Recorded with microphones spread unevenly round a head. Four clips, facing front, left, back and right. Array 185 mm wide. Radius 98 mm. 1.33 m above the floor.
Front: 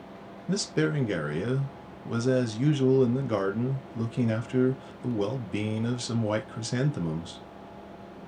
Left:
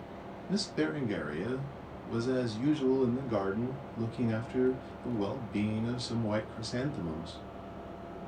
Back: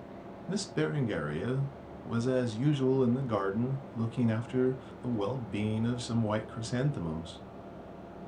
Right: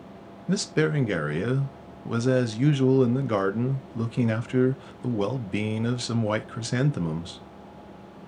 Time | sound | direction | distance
0.5 | a man speaking | 70° right | 0.6 m